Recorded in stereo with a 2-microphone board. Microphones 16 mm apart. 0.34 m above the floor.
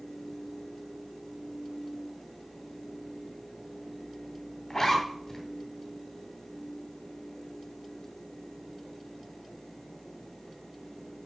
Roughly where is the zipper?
Left.